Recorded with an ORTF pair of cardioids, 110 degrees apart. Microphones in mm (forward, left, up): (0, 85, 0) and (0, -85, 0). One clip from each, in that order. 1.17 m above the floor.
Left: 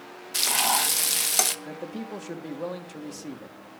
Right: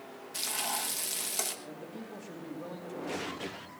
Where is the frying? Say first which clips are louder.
Left 11 dB; 55° left, 1.2 m.